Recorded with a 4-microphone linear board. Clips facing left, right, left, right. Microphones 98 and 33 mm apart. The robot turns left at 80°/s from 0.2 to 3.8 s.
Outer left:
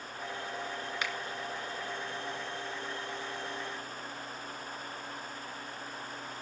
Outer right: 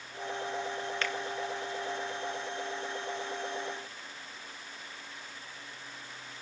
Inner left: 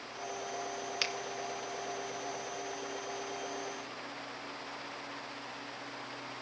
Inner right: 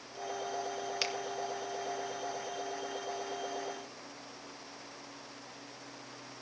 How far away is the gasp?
I don't hear a gasp.